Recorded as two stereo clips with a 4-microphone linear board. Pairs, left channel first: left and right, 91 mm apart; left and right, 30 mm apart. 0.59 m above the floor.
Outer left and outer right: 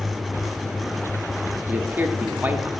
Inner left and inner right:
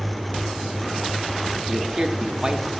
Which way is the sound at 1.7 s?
20° right (ahead or behind).